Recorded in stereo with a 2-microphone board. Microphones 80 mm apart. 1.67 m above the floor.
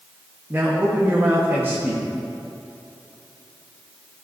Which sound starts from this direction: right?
A man speaking, at 0.5 s.